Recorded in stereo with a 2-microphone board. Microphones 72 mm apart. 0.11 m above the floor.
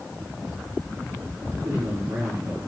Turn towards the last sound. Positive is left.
turn(degrees=-60)  # may be behind; listen again after turning